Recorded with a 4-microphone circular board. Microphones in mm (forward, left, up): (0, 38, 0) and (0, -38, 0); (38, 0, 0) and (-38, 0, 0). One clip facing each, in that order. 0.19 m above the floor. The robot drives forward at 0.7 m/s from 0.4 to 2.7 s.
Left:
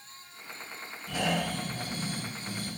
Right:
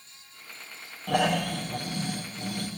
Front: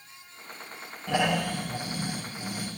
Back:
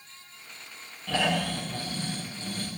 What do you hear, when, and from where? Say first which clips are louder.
1.1 s snoring: right 5 dB, front 1 dB; 70° right, 10 m; by 2.7 s 75° right, 9.5 m